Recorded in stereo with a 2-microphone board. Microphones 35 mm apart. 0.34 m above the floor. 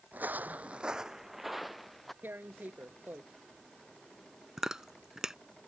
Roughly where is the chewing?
Centre.